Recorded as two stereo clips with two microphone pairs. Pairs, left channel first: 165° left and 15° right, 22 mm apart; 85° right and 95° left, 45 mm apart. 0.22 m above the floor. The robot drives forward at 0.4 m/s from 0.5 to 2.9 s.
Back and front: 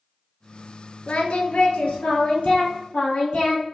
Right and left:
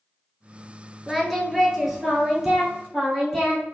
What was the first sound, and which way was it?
Singing, 170° right.